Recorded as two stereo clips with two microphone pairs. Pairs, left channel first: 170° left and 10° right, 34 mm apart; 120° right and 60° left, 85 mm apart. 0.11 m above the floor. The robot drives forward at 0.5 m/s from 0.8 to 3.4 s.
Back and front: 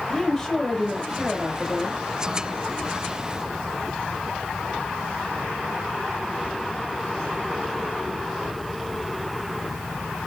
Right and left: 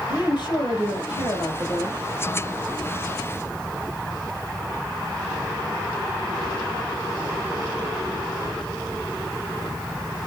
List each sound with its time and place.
0.1 s a woman speaking: 110° right, 3 m; by 2.0 s 120° right, 3 m